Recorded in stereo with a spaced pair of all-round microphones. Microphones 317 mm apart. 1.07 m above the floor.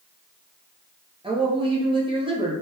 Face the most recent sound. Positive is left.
turn(degrees=-15)  # may be behind; listen again after turning